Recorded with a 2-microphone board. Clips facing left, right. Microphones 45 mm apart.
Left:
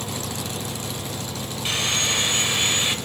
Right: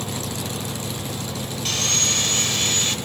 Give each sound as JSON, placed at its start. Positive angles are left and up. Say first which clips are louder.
{"t": 1.6, "sound": "sawing", "louder": "left 2 dB", "side_deg": 15, "distance_m": 2.5}